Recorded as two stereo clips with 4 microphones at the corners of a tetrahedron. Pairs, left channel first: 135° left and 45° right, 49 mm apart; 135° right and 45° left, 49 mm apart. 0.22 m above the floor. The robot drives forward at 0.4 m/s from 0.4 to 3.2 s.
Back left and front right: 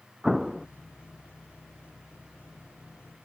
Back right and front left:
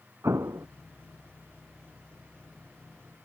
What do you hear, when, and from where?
0.2 s an explosion: 40° left